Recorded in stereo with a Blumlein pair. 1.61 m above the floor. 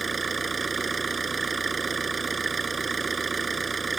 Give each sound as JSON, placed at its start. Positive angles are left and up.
{"t": 0.0, "sound": "an engine running", "azimuth_deg": -15}